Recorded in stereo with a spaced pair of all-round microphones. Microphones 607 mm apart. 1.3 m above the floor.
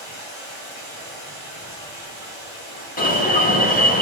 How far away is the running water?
About 1.8 m.